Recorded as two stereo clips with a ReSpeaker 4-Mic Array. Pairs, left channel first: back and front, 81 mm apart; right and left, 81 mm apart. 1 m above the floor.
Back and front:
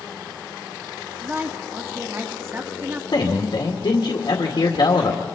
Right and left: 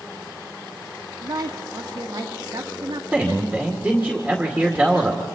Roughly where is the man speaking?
Behind.